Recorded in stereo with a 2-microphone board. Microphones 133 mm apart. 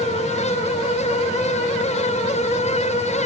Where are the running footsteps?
I don't hear running footsteps.